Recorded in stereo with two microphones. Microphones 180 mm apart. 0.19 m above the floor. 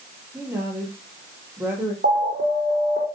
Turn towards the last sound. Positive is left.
turn(degrees=-80)